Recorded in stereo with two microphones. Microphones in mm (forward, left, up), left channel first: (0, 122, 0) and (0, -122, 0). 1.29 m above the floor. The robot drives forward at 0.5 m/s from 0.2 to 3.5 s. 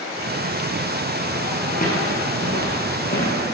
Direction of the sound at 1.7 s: 35° left (ahead or behind).